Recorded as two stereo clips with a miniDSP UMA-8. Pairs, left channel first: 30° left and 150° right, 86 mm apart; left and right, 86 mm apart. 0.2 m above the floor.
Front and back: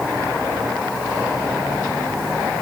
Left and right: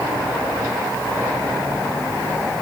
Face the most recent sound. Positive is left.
No sound to turn to.